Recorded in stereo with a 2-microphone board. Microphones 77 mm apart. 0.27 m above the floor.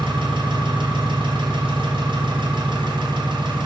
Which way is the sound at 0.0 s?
80° right.